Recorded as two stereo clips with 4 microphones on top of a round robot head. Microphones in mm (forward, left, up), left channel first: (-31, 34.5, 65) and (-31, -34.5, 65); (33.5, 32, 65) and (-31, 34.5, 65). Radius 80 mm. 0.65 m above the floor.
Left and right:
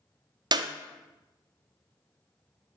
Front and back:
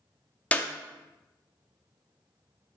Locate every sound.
0.5 s a clap: 75° right, 0.8 m